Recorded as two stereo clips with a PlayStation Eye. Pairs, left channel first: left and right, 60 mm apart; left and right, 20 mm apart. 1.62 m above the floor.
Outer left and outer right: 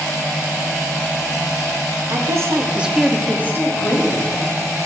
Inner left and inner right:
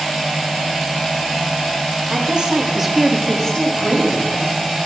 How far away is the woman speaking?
About 0.7 m.